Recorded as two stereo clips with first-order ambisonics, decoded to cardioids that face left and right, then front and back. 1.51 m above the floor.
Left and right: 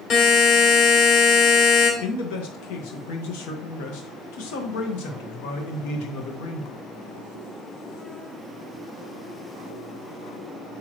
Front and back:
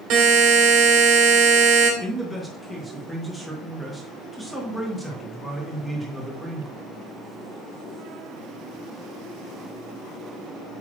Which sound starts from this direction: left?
A man speaking, at 2.0 s.